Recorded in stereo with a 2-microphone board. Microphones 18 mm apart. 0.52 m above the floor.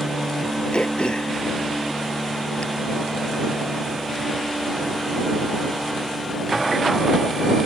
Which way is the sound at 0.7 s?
55° left (ahead or behind).